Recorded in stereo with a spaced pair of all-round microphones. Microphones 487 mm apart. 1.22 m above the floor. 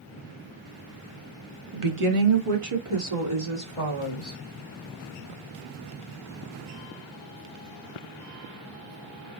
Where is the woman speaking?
80° right, 0.8 m; by 4.4 s 85° right, 3 m.